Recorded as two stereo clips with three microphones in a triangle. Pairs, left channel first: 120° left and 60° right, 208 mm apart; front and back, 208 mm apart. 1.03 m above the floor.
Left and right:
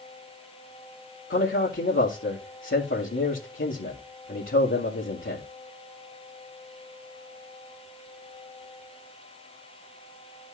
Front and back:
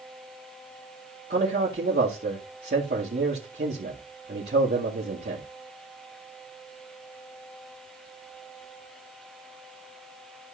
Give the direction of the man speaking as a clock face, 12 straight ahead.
7 o'clock.